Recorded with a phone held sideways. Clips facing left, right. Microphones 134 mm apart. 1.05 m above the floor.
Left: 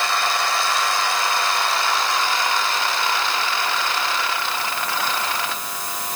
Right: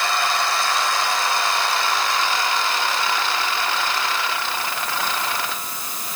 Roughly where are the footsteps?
I don't hear footsteps.